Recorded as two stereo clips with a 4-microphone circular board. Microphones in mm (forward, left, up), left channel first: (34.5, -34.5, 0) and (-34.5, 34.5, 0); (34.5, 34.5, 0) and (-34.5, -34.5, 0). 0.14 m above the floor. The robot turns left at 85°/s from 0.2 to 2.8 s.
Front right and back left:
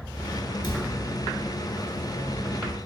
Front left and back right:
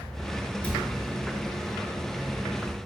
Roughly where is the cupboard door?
Ahead right.